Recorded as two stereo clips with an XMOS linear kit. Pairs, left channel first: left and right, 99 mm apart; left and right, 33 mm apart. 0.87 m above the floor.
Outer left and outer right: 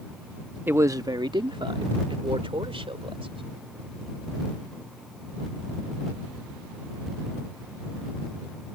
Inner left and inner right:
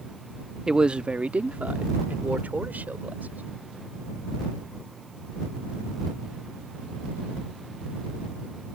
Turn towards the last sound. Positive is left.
turn(degrees=-80)